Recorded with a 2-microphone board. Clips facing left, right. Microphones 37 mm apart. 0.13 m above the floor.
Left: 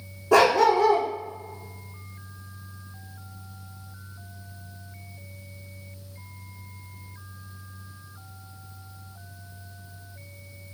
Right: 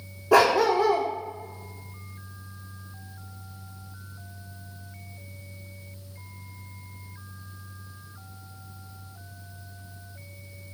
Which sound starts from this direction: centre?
A dog barking, at 0.3 s.